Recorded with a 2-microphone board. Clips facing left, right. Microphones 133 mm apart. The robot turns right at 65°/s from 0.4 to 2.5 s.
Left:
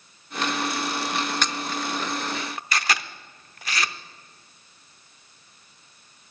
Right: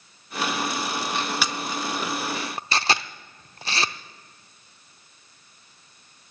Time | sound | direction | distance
1.4 | a camera shutter | 5° right (ahead or behind) | 0.5 m